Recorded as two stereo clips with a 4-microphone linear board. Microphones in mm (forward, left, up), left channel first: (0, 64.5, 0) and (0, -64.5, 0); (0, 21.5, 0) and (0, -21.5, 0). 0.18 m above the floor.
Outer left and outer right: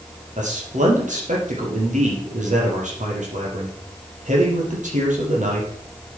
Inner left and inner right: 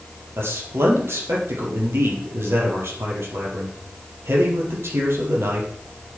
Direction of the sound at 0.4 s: 75° right (ahead or behind).